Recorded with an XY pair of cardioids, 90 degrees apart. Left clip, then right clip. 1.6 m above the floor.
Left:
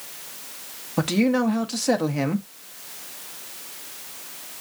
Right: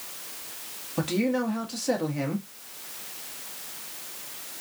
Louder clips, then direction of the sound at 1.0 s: Left 5 dB; 45° left.